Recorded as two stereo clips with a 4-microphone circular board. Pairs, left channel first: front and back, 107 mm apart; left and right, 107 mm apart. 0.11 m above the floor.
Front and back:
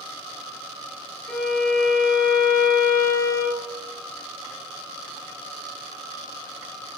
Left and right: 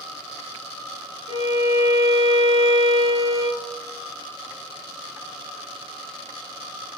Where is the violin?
85° left, 5.5 m.